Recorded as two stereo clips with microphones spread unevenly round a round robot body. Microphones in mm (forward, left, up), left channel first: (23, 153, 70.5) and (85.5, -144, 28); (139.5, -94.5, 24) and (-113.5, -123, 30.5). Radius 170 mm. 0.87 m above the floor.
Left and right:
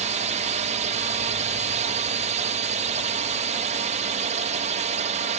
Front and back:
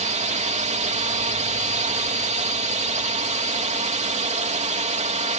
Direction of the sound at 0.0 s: 125° right.